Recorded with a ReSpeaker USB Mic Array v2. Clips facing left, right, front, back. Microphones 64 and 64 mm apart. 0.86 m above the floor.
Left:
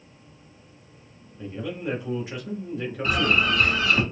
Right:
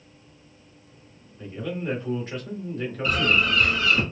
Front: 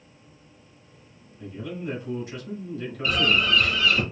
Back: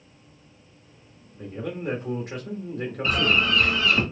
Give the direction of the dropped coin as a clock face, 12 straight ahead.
I don't hear a dropped coin.